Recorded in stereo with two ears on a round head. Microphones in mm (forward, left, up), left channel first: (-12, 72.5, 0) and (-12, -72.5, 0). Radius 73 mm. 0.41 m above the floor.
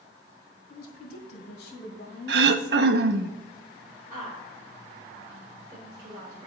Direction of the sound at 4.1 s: 25° right (ahead or behind).